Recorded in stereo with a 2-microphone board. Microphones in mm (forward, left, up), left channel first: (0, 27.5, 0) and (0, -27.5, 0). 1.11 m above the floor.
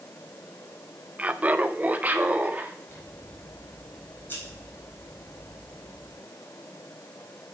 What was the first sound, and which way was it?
Laughter, 25° right (ahead or behind).